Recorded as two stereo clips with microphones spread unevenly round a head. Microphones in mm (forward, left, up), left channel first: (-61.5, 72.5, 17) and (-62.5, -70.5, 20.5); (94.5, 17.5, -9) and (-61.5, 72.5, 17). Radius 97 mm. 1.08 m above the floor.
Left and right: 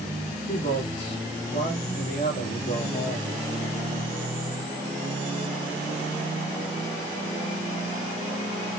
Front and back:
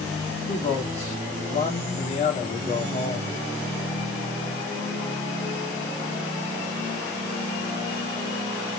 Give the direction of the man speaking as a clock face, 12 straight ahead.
11 o'clock.